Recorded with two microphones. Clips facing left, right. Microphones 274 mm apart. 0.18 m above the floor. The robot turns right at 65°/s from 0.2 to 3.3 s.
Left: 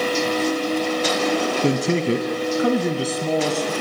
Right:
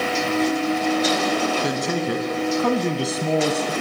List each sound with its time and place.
1.6 s a man speaking: 90° left, 1.4 m; by 3.7 s 160° right, 1.4 m